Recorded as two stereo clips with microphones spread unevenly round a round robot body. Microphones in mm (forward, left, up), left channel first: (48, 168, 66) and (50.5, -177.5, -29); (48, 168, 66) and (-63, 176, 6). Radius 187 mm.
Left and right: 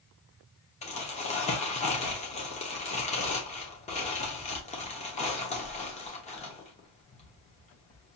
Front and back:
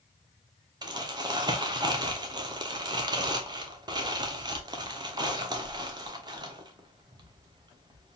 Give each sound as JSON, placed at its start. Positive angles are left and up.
{"t": 0.8, "sound": "crumpling", "azimuth_deg": 170, "distance_m": 0.8}